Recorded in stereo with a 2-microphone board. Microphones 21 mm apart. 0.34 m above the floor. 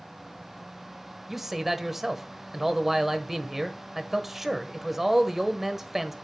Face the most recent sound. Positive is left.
turn(degrees=-15)  # may be behind; listen again after turning